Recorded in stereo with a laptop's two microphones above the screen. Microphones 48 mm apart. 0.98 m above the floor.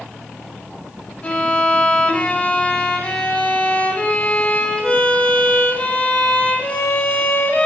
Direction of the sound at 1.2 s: 25° left (ahead or behind).